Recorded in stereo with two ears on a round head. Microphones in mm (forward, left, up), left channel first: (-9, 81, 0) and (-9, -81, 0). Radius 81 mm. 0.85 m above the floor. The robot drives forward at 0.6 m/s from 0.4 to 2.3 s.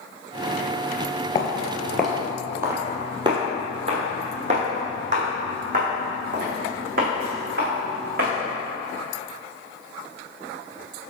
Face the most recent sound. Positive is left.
turn(degrees=-60)  # may be behind; listen again after turning